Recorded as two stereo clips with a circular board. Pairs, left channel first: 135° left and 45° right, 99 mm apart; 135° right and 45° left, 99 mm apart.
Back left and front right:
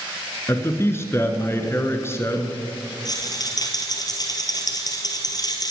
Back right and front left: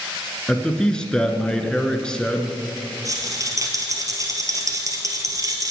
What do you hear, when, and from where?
0.5 s a man speaking: 155° left, 1.5 m
3.0 s a rattle: 95° left, 2 m